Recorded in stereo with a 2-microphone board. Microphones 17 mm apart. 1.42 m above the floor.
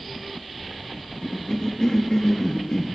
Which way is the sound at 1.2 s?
45° left (ahead or behind).